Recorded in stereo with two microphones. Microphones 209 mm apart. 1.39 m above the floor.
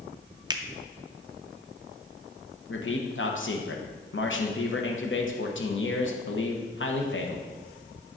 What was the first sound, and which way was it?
A finger snap, 20° right (ahead or behind).